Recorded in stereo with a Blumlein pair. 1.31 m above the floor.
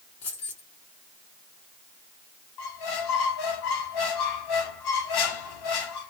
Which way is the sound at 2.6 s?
50° left.